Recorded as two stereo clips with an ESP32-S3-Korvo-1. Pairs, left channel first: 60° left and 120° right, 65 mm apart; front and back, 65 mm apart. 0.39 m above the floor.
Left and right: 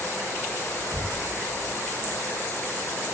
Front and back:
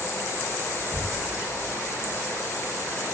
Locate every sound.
0.9 s knocking: 100° right